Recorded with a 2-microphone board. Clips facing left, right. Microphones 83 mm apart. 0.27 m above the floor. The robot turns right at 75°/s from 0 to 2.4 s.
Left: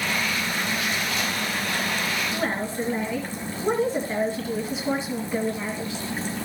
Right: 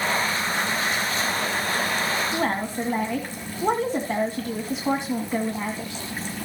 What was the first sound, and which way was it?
A woman speaking, 60° right (ahead or behind).